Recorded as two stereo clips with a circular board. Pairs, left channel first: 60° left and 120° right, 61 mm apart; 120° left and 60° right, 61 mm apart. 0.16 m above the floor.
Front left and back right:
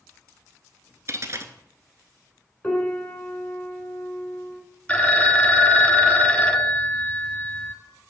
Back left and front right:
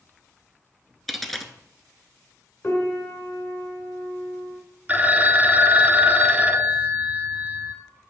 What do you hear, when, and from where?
1.1 s a dropped coin: 155° right, 0.7 m
2.6 s a piano: 120° left, 1.7 m
4.9 s a phone ringing: 10° right, 0.8 m